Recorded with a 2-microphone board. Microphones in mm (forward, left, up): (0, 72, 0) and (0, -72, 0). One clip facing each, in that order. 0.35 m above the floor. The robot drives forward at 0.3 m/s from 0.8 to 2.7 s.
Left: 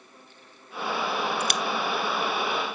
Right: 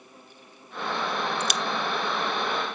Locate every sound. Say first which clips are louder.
1.4 s a crack: left 1 dB; 60° left (ahead or behind), 0.6 m; by 1.6 s 55° left (ahead or behind), 0.6 m